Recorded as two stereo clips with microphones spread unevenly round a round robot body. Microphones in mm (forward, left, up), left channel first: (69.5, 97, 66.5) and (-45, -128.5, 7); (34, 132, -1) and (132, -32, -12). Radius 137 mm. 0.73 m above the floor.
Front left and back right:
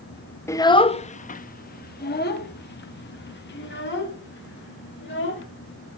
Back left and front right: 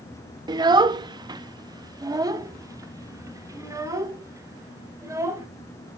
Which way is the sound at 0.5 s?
30° right.